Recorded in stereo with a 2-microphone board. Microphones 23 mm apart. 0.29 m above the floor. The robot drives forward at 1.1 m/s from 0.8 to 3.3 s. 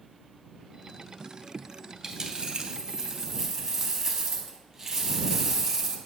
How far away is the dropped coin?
About 0.8 m.